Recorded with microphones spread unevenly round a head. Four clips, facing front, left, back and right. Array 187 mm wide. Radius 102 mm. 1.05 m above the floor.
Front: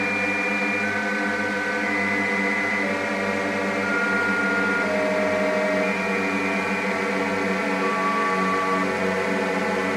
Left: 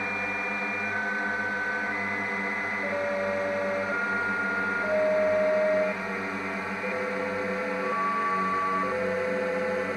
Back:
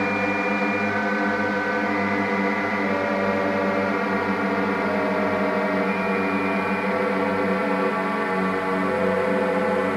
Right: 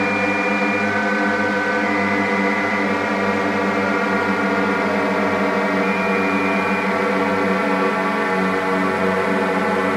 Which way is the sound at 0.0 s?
100° right.